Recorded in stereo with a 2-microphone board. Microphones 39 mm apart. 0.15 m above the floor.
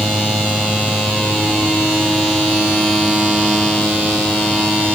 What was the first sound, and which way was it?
Only background noise.